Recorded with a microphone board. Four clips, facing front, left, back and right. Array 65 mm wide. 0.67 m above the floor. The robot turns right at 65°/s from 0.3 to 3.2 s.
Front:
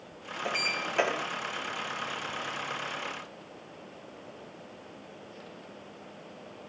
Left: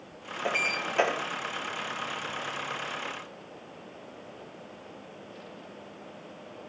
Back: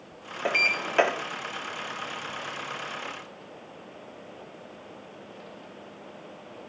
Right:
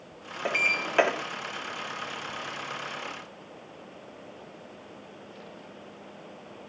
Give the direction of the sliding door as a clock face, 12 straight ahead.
5 o'clock.